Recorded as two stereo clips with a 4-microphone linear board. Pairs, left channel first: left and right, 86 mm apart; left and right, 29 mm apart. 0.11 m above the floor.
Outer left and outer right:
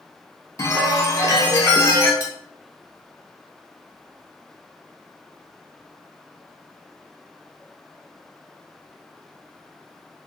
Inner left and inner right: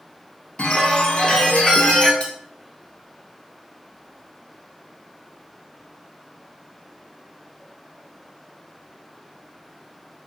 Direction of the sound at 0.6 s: 35° left (ahead or behind).